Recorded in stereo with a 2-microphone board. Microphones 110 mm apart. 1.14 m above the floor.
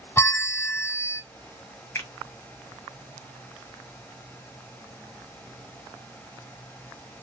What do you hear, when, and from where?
0.2 s a bell: 25° left (ahead or behind), 0.5 m
1.9 s a finger snap: 25° left (ahead or behind), 1.4 m